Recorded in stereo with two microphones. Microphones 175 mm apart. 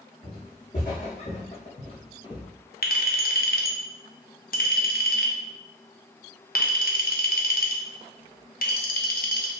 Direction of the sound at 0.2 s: 50° left (ahead or behind).